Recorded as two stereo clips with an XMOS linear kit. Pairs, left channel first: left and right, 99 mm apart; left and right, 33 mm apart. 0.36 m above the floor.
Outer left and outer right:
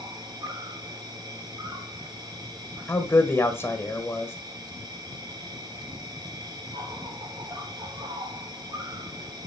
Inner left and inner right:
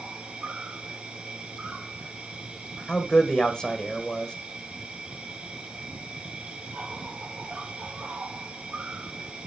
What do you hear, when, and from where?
0.0 s an insect: 40° right (ahead or behind), 3.5 m
2.9 s a man speaking: 25° left (ahead or behind), 1.6 m